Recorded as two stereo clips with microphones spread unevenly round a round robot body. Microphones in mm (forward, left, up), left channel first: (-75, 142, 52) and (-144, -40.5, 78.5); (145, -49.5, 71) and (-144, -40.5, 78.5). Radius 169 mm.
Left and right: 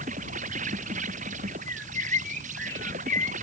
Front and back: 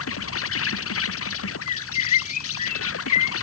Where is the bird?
10° right.